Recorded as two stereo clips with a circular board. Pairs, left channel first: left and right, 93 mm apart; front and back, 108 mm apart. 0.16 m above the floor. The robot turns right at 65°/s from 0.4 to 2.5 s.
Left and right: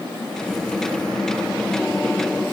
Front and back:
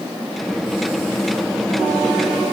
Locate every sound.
Only background noise.